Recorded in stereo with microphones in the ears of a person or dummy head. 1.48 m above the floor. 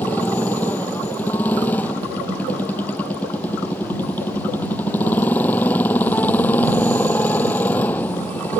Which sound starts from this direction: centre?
A motorcycle, at 0.0 s.